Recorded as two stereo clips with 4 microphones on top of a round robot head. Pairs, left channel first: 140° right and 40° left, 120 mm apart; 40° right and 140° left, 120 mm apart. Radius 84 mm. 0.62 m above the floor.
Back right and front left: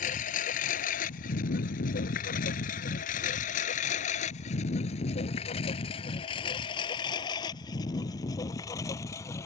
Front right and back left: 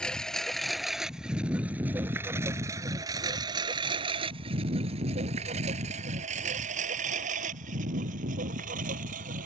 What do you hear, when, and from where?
0.0 s a lawn mower: 125° right; by 9.5 s 150° left